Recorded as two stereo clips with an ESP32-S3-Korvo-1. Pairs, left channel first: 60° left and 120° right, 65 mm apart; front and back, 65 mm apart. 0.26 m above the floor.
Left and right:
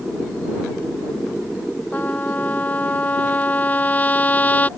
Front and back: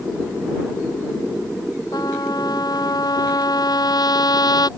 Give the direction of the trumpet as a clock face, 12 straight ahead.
12 o'clock.